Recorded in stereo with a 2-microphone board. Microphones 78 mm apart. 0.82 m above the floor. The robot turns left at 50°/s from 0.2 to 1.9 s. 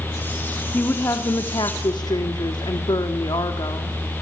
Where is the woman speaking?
155° left, 1.6 m; by 4.0 s 95° left, 1.6 m.